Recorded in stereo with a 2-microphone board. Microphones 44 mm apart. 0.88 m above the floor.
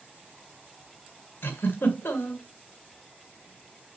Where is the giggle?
60° left (ahead or behind), 1.7 m.